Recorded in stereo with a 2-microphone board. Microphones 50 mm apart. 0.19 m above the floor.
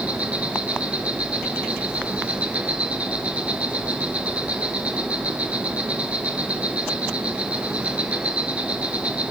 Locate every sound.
0.0 s an insect: 25° right (ahead or behind), 1.5 m